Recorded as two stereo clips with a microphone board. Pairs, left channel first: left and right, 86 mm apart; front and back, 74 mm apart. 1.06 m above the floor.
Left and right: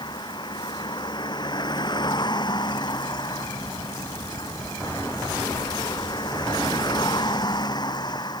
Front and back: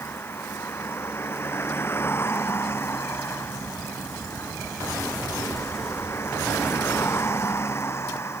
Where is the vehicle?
60° left; by 8.4 s 55° left.